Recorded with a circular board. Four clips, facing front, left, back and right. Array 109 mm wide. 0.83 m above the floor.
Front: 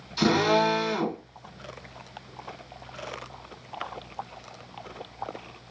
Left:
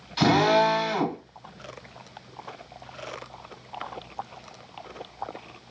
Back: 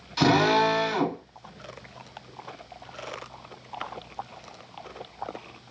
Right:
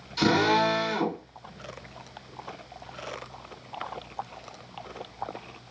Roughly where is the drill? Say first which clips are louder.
Left 3 dB, back 1 dB; behind left.